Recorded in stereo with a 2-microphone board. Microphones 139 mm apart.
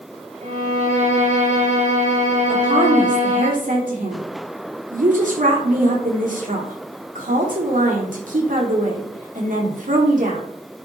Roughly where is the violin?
Right.